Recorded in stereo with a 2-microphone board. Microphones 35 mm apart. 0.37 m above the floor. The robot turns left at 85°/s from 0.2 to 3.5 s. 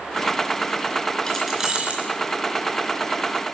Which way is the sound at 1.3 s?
20° left.